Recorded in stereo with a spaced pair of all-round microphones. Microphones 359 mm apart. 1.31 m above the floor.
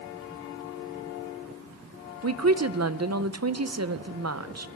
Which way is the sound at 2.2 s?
50° right (ahead or behind).